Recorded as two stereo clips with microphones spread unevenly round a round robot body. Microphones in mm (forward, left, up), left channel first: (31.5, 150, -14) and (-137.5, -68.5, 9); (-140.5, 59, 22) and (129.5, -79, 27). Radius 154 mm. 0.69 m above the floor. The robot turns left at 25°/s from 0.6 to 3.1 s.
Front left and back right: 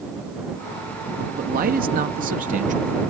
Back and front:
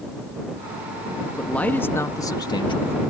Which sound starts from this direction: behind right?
A man speaking, at 1.4 s.